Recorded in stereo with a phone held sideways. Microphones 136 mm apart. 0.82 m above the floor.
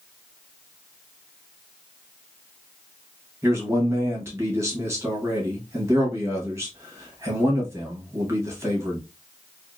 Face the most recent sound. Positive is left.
turn(degrees=-20)  # may be behind; listen again after turning